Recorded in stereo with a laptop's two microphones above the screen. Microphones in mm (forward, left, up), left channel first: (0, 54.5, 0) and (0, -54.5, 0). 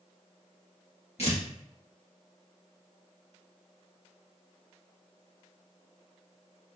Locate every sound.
1.2 s tearing paper: 60° left (ahead or behind), 1.8 m